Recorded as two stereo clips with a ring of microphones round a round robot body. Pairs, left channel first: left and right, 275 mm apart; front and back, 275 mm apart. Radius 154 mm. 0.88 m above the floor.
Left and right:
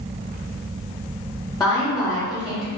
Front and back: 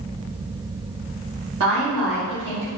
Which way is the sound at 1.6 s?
165° left.